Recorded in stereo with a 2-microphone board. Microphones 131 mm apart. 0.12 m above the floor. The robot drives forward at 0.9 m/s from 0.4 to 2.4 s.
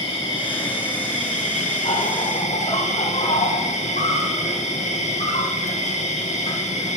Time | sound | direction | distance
0.0 | an insect | 45° left (ahead or behind) | 3 m